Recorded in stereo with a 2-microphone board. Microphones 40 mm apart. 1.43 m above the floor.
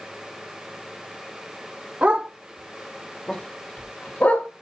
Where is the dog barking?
40° right (ahead or behind), 1.4 m; by 4.5 s 55° left (ahead or behind), 2 m.